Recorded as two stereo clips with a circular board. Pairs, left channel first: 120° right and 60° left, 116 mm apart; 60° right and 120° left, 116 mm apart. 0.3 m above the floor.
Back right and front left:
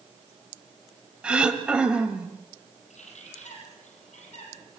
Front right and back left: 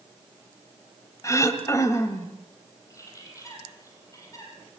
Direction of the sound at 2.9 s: 120° right.